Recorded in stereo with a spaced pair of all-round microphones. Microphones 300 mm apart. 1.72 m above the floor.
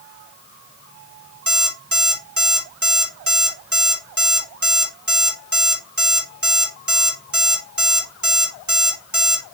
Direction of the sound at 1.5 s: 70° right (ahead or behind).